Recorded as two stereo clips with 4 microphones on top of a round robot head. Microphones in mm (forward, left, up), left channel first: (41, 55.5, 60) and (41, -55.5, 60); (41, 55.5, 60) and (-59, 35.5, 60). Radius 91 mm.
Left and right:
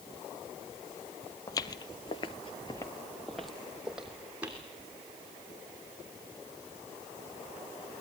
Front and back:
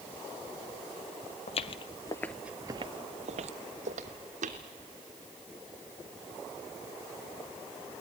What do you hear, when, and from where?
1.5 s footsteps: 35° left, 0.9 m; by 4.6 s 170° right, 1.8 m